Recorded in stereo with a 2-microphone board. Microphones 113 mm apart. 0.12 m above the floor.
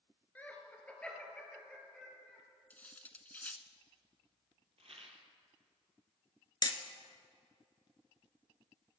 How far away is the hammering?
About 0.9 m.